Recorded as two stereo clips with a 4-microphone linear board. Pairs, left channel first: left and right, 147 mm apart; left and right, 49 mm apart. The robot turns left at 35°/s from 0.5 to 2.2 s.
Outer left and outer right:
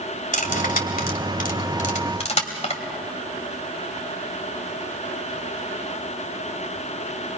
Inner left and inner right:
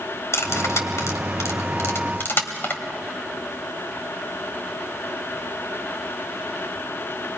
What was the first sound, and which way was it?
Cutlery clinking, 70° left (ahead or behind).